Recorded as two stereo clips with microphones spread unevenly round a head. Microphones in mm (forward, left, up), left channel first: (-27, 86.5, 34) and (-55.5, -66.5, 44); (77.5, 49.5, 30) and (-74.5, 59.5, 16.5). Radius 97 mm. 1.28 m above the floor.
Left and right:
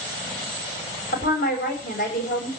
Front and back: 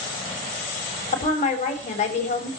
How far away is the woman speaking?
About 7 m.